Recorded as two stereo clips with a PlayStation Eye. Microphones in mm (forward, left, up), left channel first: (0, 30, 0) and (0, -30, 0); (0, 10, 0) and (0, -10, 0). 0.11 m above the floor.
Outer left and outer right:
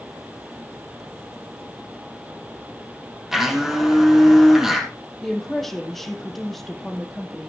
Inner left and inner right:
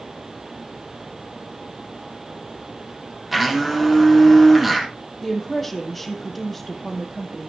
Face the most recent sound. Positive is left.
turn(degrees=5)  # may be behind; listen again after turning